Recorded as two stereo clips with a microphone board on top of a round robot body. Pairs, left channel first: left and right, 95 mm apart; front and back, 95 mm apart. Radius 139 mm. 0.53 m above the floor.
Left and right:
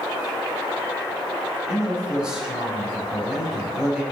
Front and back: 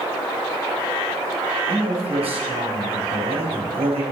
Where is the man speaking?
170° right, 3 m.